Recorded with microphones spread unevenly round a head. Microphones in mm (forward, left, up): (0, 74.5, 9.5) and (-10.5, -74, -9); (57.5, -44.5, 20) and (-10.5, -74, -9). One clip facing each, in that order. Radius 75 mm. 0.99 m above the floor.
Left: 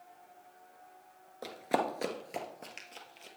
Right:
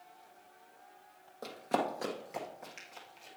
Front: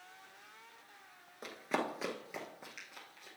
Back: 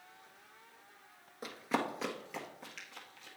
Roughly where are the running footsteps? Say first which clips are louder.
Left 1 dB, back 1 dB; ahead left.